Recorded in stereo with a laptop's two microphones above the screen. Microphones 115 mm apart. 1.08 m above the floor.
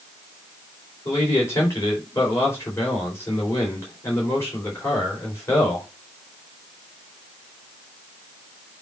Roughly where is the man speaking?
Left.